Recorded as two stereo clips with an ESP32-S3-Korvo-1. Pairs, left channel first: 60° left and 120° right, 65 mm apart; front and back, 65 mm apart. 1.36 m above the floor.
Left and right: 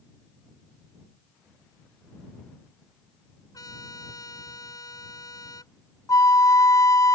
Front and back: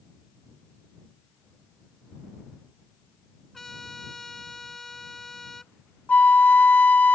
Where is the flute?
60° left.